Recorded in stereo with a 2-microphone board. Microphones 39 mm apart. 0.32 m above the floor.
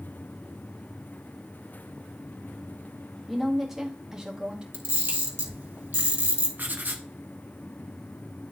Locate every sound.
3.3 s a woman speaking: centre (ahead or behind), 2 m; by 4.6 s 30° right (ahead or behind), 2.5 m
4.7 s a camera shutter: 85° right, 2 m
6.6 s writing: 55° right (ahead or behind), 1.0 m